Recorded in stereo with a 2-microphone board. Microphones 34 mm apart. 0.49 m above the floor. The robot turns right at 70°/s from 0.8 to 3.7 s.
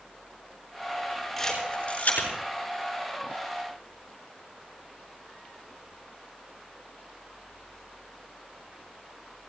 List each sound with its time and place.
1.4 s a camera shutter: 5° left (ahead or behind), 6.5 m; by 2.3 s 70° left (ahead or behind), 6.5 m